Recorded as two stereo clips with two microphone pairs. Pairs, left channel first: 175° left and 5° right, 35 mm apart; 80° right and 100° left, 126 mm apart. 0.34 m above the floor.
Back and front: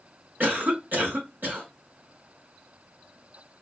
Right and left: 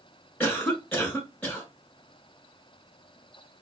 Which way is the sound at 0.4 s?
Straight ahead.